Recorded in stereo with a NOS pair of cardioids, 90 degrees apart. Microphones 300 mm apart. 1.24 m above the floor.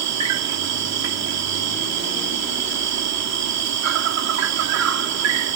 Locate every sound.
0.0 s an insect: 65° right